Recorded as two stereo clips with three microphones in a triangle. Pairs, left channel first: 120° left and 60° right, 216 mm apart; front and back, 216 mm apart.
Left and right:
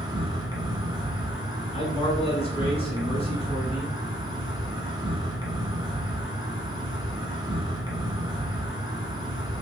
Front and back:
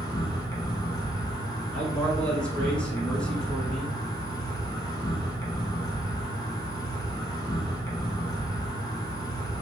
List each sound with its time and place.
0.0 s an insect: 35° right, 0.9 m
1.7 s a man speaking: 85° left, 1.3 m